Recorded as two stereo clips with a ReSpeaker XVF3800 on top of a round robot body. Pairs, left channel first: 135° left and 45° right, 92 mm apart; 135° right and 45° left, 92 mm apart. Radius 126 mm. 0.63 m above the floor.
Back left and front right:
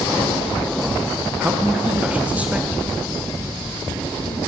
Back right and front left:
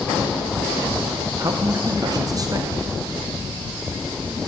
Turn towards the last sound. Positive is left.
turn(degrees=25)